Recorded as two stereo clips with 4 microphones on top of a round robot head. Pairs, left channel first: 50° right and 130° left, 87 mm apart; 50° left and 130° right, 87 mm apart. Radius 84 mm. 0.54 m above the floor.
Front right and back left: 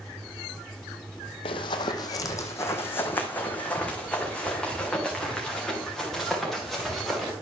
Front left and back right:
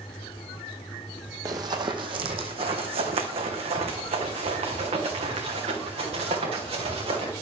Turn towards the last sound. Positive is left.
turn(degrees=-140)